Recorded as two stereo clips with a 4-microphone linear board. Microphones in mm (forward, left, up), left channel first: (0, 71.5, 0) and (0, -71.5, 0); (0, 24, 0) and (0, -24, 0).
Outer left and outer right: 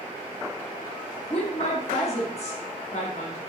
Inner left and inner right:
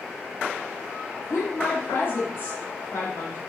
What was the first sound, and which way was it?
A woman speaking, 50° left (ahead or behind).